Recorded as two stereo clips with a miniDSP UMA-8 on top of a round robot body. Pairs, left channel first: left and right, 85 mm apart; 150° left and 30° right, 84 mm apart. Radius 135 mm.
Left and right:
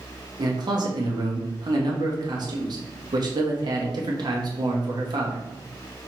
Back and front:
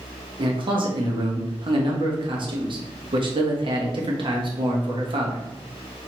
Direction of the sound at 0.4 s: 55° right.